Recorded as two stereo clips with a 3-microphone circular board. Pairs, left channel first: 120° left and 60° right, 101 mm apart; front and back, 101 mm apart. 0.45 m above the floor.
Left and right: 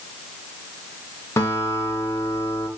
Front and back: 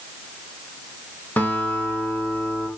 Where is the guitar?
65° left, 1.6 m.